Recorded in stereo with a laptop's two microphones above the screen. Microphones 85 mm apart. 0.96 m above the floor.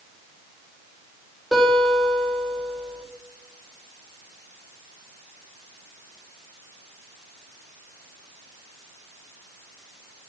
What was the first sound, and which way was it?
A guitar, centre (ahead or behind).